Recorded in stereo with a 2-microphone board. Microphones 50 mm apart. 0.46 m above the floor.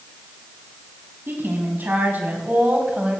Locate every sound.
1.3 s a woman speaking: 45° right (ahead or behind), 4 m; by 3.2 s 25° right (ahead or behind), 3 m